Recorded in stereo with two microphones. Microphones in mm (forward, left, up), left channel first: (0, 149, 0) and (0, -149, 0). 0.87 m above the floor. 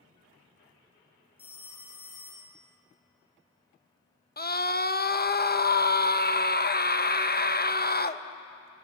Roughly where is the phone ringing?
Centre.